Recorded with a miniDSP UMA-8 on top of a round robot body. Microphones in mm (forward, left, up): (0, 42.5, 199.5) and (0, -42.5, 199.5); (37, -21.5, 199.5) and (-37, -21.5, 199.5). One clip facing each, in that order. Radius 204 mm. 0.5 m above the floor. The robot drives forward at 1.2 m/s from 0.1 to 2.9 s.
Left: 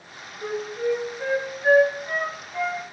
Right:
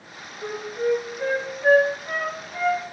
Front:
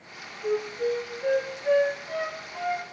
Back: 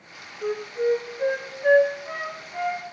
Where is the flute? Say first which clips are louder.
Right 1 dB, back 2 dB; 160° left, 9.5 m; by 2.9 s 165° left, 12 m.